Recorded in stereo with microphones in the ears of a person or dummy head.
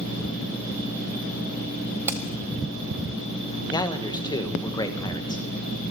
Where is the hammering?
10° right (ahead or behind), 1.5 m.